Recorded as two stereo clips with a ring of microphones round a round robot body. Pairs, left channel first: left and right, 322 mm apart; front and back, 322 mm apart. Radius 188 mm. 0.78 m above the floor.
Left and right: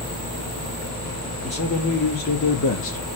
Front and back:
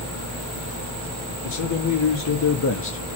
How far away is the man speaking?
About 1.9 m.